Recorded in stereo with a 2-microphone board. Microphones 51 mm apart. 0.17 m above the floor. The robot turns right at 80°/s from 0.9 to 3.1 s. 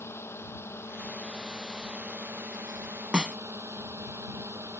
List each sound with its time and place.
0.0 s a drone: 125° left; by 4.8 s 60° right
3.1 s a snare drum: 15° right (ahead or behind)